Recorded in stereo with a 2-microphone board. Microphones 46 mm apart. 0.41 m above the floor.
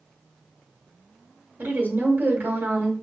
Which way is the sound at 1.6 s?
50° right (ahead or behind).